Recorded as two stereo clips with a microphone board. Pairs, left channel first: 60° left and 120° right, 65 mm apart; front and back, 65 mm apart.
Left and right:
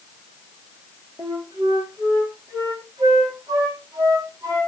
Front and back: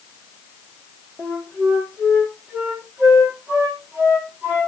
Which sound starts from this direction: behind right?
A flute, at 1.2 s.